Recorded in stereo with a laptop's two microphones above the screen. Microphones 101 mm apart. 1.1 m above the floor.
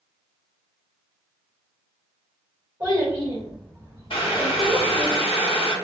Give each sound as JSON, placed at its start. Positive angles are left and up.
{"t": 2.8, "sound": "a child speaking", "side_deg": -35, "distance_m": 1.2}
{"t": 4.1, "sound": "boiling", "side_deg": 65, "distance_m": 0.7}